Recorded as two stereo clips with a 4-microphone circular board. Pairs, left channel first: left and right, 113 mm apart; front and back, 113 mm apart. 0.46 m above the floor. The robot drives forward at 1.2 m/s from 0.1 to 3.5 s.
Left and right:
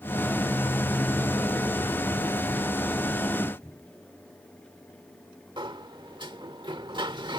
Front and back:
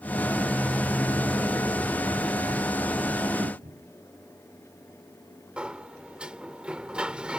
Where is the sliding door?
105° right.